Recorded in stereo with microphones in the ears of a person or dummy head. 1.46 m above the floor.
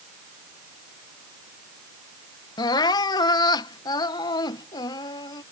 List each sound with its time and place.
2.6 s crying: 25° left (ahead or behind)